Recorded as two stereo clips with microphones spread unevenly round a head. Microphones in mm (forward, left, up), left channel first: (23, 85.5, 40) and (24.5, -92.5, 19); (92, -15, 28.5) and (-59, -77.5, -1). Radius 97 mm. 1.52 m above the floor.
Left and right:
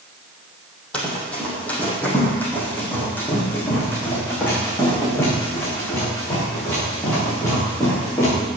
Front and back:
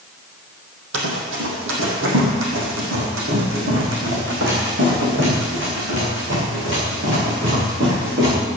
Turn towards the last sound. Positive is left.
turn(degrees=165)